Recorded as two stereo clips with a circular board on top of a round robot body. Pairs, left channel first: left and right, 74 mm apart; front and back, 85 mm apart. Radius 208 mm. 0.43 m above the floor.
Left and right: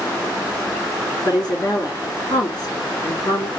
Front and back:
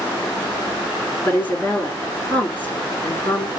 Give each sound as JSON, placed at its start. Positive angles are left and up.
{"t": 1.2, "sound": "a woman speaking", "azimuth_deg": 65, "distance_m": 2.5}